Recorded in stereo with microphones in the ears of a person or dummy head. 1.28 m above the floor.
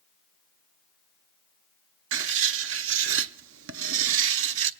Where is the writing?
65° right (ahead or behind), 0.7 m.